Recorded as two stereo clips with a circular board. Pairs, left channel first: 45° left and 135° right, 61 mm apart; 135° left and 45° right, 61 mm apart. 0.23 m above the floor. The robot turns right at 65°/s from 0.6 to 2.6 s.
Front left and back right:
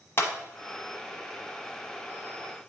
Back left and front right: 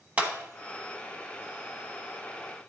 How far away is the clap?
About 1.1 m.